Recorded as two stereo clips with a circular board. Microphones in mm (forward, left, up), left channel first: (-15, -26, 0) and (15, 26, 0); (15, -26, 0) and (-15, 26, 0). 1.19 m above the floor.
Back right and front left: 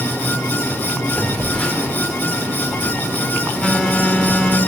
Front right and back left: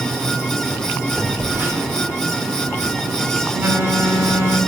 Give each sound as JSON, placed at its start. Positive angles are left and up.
{"t": 1.1, "sound": "a phone buzzing", "azimuth_deg": 170, "distance_m": 3.0}